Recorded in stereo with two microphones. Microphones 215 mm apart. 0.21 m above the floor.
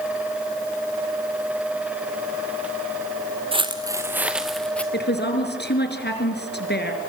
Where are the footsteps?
25° right (ahead or behind), 1.3 m; by 4.8 s 5° left (ahead or behind), 1.6 m.